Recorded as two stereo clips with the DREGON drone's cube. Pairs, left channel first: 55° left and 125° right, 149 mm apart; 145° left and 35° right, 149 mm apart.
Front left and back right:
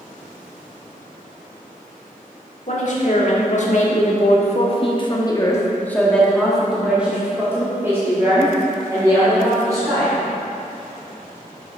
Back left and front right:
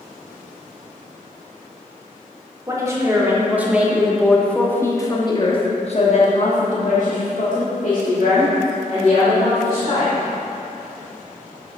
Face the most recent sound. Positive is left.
turn(degrees=175)